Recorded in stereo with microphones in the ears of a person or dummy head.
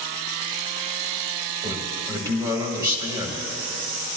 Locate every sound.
1.6 s a man speaking: 20° right (ahead or behind), 1.8 m